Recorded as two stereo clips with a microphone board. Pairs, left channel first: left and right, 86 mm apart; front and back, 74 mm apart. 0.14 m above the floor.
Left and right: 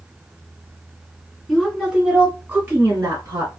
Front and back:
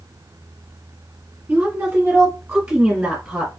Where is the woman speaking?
Straight behind, 1.1 m; by 3.5 s 105° right, 1.4 m.